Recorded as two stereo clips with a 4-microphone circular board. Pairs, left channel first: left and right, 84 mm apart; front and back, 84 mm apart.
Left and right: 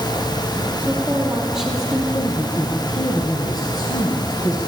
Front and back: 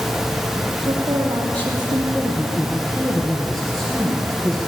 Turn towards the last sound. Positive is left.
turn(degrees=85)